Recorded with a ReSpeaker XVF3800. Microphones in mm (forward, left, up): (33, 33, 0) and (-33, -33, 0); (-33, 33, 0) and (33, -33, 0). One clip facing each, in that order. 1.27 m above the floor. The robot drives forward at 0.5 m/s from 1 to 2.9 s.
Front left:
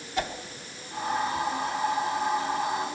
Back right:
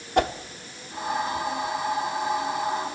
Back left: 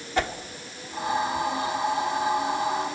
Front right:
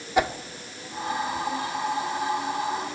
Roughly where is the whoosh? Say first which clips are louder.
Back right 8 dB, front right 3 dB; behind right.